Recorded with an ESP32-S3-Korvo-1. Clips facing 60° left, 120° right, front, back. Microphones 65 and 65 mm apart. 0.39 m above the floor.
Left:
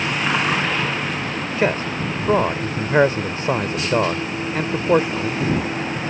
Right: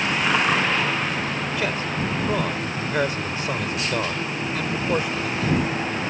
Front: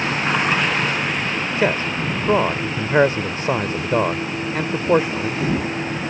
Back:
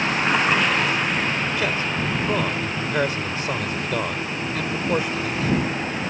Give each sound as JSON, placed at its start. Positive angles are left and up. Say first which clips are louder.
{"t": 1.6, "sound": "a man speaking", "louder": "left 8 dB, front 4 dB", "azimuth_deg": 30}